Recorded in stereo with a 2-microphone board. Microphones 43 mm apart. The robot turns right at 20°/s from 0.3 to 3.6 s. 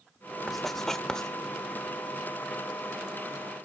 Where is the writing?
5° left (ahead or behind), 1.2 m; by 1.3 s 15° left (ahead or behind), 1.2 m.